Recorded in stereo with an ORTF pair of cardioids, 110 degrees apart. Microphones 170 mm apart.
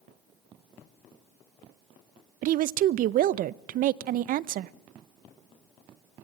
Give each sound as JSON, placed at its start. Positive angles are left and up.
{"t": 2.4, "sound": "a woman speaking", "azimuth_deg": -55, "distance_m": 0.5}